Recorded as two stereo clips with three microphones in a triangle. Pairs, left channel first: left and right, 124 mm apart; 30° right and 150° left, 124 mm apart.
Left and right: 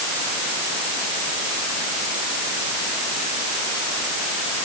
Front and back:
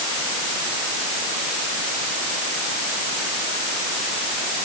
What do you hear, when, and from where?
Only background noise.